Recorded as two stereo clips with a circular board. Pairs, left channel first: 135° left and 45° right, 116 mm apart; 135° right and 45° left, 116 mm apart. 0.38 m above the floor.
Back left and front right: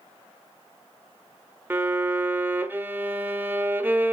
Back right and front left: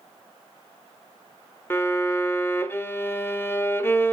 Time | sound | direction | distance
1.7 | a violin | 95° right | 1.3 m